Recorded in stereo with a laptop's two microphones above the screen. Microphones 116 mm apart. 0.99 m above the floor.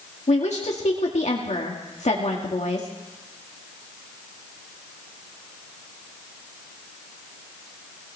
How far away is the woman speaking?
About 1.9 m.